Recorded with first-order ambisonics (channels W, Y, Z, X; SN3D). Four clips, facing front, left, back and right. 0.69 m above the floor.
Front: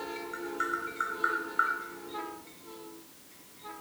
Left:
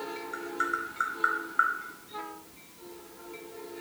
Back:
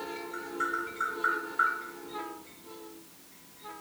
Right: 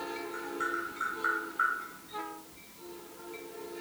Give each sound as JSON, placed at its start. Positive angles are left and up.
{"t": 0.3, "sound": "tapping", "azimuth_deg": 65, "distance_m": 1.9}